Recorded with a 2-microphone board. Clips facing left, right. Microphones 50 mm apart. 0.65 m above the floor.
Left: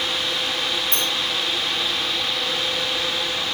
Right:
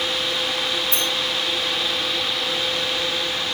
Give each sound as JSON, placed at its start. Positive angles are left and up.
{"t": 0.9, "sound": "a sliding door", "side_deg": 55, "distance_m": 7.5}